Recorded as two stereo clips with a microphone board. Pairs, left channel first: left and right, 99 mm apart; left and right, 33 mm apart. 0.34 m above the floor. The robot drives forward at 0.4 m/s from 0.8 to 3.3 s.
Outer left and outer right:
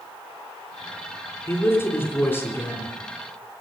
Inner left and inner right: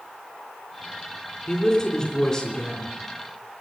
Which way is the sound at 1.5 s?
20° left (ahead or behind).